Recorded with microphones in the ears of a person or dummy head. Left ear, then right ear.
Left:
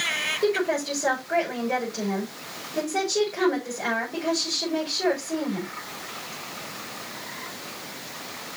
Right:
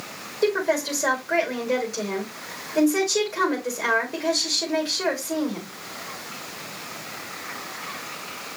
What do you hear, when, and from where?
0.4 s a woman speaking: 60° right (ahead or behind), 5.5 m